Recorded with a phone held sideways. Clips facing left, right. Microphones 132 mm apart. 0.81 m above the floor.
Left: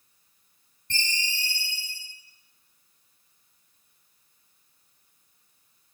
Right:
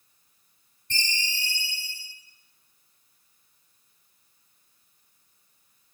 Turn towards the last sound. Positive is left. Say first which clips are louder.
# even
turn(degrees=55)  # may be behind; listen again after turning